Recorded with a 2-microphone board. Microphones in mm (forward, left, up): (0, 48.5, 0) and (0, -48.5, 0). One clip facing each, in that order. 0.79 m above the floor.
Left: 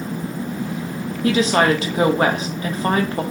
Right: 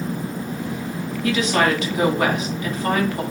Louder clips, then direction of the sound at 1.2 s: Left 3 dB; 35° left (ahead or behind).